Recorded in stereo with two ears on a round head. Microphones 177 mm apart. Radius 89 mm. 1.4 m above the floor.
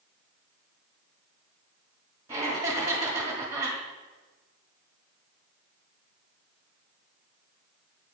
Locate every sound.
2.3 s laughter: 20° right (ahead or behind), 1.7 m